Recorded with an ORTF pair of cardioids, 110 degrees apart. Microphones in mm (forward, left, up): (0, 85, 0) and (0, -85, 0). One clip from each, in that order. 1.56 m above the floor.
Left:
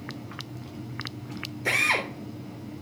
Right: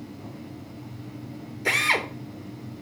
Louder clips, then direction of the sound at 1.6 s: Right 1 dB; 20° right.